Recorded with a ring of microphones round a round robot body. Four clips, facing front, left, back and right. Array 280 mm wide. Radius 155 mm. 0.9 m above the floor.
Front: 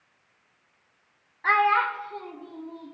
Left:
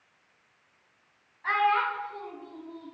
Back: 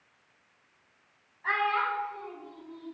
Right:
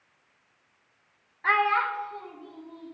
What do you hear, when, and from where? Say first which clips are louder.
1.4 s a child speaking: right 1 dB, front 7 dB; 40° right, 0.6 m; by 3.0 s 25° left, 1.2 m